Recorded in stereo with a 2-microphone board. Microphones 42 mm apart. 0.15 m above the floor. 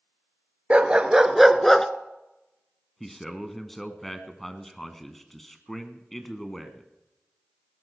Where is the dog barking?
30° right (ahead or behind), 1.1 m; by 1.9 s 10° left (ahead or behind), 0.8 m.